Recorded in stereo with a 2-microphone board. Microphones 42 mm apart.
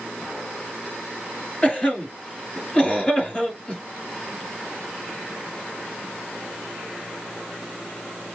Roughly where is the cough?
Left.